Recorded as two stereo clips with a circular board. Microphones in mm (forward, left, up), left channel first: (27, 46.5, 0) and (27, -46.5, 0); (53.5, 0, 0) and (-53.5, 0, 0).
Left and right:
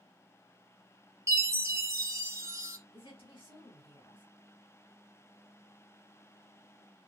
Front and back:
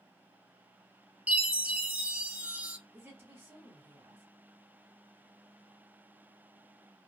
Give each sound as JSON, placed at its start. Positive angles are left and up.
{"t": 1.3, "sound": "a chime", "azimuth_deg": -110, "distance_m": 0.6}
{"t": 2.9, "sound": "a woman speaking", "azimuth_deg": 110, "distance_m": 1.6}